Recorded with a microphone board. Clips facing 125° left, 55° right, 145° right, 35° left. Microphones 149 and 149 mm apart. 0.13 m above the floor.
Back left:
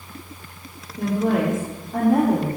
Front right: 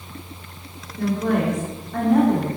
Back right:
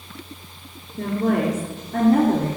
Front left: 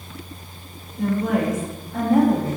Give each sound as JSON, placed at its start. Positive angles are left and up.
{"t": 1.0, "sound": "a woman speaking", "azimuth_deg": -170, "distance_m": 2.5}